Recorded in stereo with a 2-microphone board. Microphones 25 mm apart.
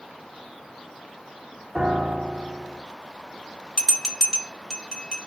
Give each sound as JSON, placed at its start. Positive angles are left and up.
{"t": 1.8, "sound": "a piano", "side_deg": -35, "distance_m": 1.5}
{"t": 3.8, "sound": "a bell", "side_deg": 20, "distance_m": 1.2}